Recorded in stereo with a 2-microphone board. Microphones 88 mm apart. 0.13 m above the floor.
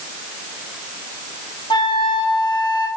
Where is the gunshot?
I don't hear a gunshot.